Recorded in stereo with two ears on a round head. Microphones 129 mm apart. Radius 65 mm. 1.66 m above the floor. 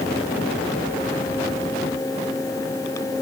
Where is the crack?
I don't hear a crack.